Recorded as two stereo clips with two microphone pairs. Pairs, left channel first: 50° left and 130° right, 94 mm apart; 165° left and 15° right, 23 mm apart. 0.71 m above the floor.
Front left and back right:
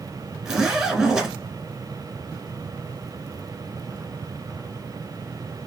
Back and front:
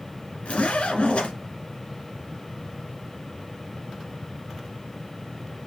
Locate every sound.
0.5 s a zipper: 150° left, 1.5 m